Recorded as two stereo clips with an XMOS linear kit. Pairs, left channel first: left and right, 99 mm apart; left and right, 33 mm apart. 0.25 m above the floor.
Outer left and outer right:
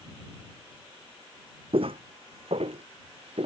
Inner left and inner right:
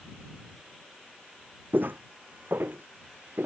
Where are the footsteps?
65° right (ahead or behind); by 3.5 s 75° right (ahead or behind).